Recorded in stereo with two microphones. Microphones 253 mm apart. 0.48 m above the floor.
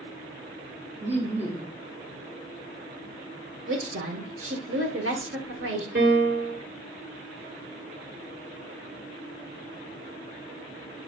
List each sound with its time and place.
1.0 s laughter: 25° right (ahead or behind), 0.8 m
3.7 s a woman speaking: 55° right (ahead or behind), 1.1 m
6.0 s a piano: 45° right (ahead or behind), 1.8 m